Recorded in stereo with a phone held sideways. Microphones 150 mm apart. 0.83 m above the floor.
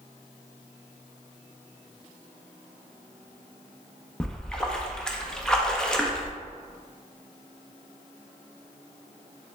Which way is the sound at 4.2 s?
5° left (ahead or behind).